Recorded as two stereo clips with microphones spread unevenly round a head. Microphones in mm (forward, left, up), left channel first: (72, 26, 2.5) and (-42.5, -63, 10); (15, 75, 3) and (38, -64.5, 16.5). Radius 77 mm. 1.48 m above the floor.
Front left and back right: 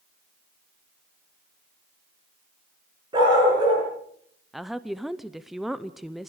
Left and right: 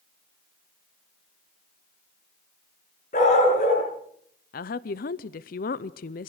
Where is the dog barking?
155° left, 7 m.